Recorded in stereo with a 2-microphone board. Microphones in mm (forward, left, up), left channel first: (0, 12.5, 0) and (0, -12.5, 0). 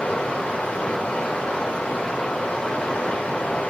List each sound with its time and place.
0.0 s running water: 70° left (ahead or behind), 0.7 m